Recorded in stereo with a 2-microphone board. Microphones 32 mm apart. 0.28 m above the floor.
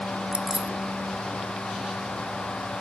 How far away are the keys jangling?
About 0.8 m.